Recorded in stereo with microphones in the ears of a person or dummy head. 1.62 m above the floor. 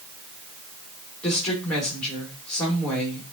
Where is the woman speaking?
5° left (ahead or behind), 2.5 m.